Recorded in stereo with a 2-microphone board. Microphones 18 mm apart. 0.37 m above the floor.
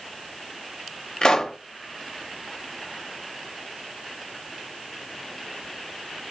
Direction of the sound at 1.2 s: 45° left (ahead or behind).